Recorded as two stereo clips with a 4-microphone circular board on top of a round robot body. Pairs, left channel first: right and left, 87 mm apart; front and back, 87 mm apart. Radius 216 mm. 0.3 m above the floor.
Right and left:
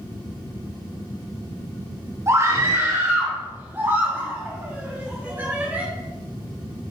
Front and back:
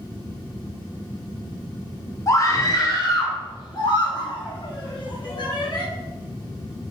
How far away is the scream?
About 2.5 m.